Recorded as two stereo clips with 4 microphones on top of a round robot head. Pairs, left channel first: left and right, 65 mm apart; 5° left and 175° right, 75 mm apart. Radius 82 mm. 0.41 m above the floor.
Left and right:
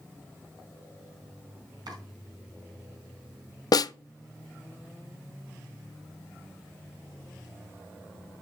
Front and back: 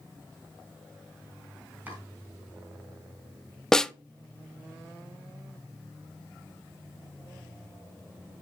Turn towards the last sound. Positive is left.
turn(degrees=85)